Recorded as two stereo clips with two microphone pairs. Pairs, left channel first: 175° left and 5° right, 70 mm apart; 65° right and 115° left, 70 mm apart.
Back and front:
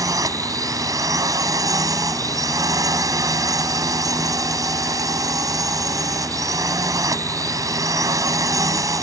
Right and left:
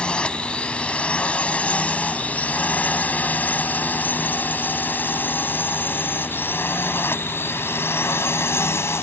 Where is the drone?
5° left; by 9.0 s 25° right.